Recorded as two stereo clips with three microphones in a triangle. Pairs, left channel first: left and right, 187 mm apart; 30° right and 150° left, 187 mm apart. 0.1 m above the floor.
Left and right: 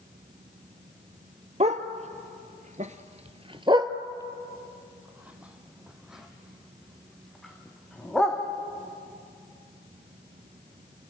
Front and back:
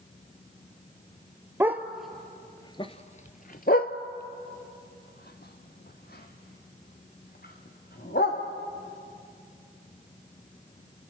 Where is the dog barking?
135° right, 1.1 m; by 8.4 s straight ahead, 3.5 m.